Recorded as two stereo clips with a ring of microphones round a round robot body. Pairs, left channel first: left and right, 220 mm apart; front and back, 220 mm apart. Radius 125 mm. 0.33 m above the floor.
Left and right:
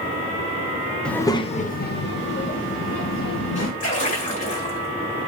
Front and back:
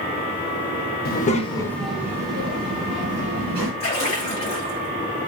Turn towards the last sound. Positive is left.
turn(degrees=55)